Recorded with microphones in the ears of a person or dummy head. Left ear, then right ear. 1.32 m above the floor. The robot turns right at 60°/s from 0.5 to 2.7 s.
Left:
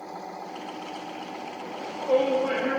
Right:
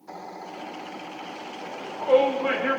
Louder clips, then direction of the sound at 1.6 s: Right 2 dB; 155° right.